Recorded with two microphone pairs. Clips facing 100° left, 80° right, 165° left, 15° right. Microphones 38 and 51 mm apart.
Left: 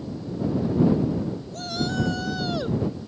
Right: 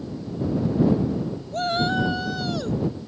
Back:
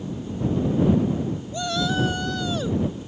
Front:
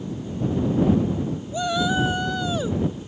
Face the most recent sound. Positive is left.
turn(degrees=60)